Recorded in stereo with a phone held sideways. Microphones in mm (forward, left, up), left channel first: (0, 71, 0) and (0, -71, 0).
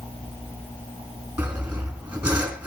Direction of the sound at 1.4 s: 10° right (ahead or behind).